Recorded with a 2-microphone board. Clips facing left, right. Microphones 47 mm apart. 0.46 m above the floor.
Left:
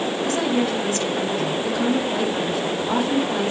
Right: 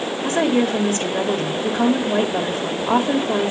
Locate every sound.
0.2 s a woman speaking: 45° right (ahead or behind), 2 m